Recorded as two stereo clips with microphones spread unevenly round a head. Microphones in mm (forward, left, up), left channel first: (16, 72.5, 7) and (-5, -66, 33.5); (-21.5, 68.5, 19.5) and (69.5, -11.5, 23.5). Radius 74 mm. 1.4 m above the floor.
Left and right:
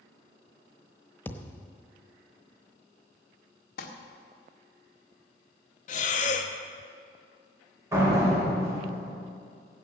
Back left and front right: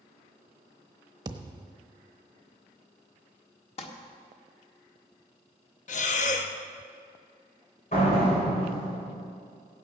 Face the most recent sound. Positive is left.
turn(degrees=-170)